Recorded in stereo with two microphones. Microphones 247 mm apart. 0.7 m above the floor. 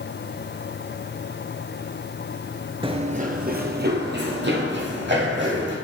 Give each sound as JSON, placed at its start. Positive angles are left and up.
{"t": 2.8, "sound": "running footsteps", "side_deg": -20, "distance_m": 0.7}